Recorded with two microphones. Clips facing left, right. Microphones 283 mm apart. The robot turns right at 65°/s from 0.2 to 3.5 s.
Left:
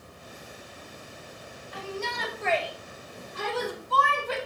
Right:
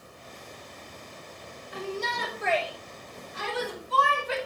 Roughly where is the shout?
Ahead right.